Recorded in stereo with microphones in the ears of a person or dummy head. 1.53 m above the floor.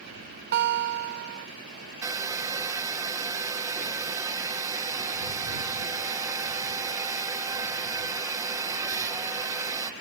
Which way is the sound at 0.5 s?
55° right (ahead or behind).